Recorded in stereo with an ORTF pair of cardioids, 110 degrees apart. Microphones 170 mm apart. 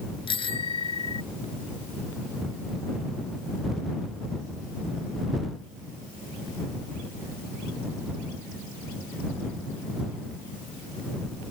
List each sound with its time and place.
0.3 s a bicycle bell: 30° left